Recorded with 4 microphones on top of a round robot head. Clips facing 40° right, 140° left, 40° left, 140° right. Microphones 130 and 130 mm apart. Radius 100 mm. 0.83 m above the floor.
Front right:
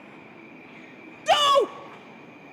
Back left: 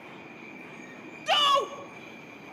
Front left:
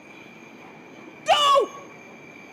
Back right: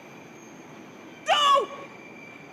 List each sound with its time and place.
1.3 s a shout: 15° right, 0.6 m